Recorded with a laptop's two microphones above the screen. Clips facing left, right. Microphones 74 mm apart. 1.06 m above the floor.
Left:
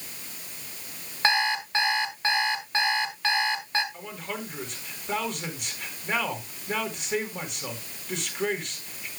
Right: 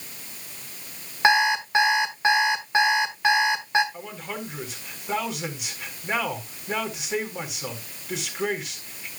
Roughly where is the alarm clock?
Centre.